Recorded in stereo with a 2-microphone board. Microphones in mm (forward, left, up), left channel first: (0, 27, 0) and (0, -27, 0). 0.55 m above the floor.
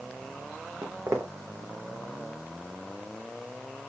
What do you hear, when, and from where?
0.8 s footsteps: 60° right (ahead or behind), 1.6 m